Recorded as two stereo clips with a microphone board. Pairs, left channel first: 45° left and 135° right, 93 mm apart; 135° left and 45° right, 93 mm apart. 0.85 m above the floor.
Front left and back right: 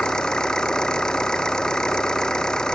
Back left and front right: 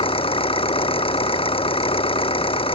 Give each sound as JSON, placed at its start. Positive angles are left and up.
{"t": 0.0, "sound": "an engine running", "azimuth_deg": 130}